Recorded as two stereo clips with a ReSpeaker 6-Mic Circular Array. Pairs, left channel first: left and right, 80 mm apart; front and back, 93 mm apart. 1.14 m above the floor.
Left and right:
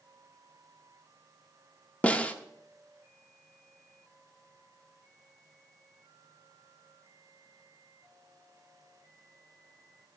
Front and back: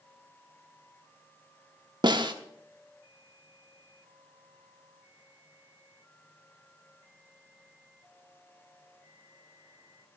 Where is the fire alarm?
No fire alarm in this recording.